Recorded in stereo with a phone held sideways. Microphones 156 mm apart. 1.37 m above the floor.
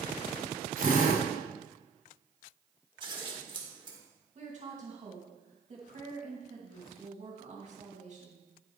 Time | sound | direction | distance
0.8 | a drill | 65° right (ahead or behind) | 2.5 m
3.0 | scissors | 30° right (ahead or behind) | 1.7 m
4.3 | a woman speaking | 50° right (ahead or behind) | 2.5 m